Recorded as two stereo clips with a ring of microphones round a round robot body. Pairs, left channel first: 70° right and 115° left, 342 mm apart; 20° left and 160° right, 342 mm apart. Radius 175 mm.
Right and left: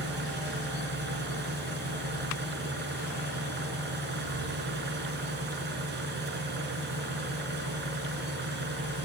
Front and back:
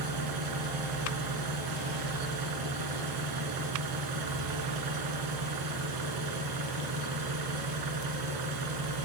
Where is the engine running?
175° left, 3.5 m.